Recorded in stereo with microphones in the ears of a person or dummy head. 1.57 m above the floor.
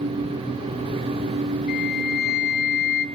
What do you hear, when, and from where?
1.7 s a flute: 50° left (ahead or behind), 7.5 m